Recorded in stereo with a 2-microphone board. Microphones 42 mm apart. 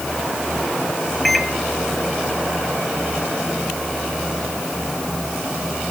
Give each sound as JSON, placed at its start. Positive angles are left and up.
{"t": 1.2, "sound": "a microwave", "side_deg": 0, "distance_m": 1.3}